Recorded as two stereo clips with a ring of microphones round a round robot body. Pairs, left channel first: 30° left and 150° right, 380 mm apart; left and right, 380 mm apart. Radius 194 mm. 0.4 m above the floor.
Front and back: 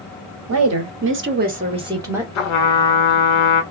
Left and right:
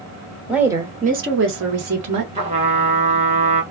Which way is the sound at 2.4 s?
15° right.